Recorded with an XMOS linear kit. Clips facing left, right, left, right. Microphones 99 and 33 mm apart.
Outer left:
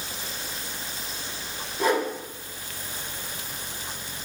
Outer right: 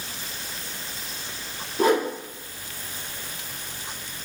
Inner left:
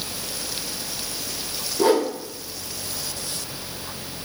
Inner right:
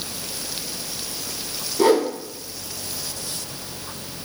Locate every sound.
1.8 s a whoosh: 55° right (ahead or behind), 1.1 m